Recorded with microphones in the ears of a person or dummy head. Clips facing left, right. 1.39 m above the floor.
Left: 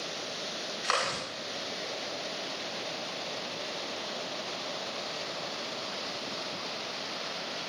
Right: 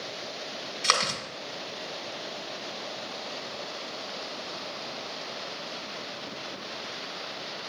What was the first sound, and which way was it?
Chewing, 60° right (ahead or behind).